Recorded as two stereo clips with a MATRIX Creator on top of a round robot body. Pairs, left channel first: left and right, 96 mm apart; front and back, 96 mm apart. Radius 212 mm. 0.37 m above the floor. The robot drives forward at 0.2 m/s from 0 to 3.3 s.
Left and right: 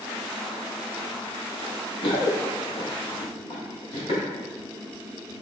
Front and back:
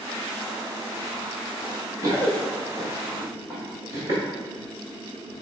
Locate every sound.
1.6 s running footsteps: 115° left, 0.6 m; by 4.2 s 125° left, 2 m